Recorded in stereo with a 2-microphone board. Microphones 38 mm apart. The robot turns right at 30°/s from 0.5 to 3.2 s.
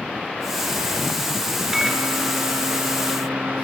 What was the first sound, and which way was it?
A microwave, 160° right.